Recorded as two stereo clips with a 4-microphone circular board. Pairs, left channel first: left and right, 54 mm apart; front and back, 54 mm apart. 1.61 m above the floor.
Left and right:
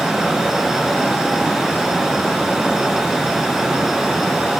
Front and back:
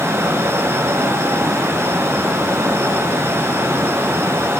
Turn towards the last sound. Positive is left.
No sound to turn to.